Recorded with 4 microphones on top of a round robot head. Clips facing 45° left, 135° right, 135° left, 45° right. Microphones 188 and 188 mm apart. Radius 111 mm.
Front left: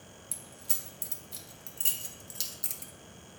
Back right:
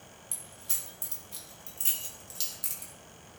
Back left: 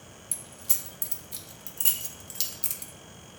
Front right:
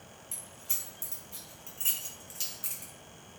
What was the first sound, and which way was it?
Keys jangling, 110° left.